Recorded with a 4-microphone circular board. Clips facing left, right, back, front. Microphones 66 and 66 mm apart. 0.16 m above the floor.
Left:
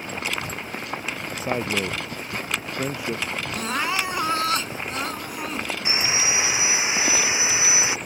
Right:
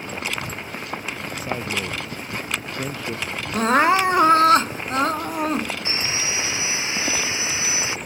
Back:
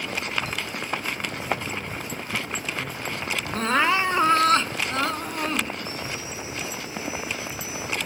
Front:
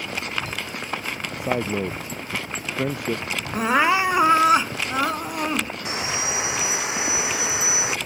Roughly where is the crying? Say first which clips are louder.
Right 10 dB, front 3 dB; right.